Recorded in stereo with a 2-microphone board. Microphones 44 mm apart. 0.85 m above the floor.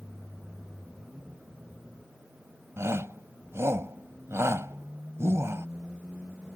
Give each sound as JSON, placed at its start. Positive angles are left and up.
{"t": 2.8, "sound": "a shout", "side_deg": -80}